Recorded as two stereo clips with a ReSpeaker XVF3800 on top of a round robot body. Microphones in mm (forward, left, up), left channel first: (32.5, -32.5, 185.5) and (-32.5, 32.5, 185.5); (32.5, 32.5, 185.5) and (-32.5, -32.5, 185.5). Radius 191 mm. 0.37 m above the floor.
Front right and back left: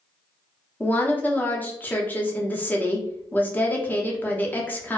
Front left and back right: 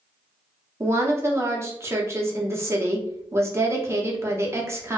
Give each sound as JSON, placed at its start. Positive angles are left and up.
{"t": 0.8, "sound": "a woman speaking", "azimuth_deg": -100, "distance_m": 0.8}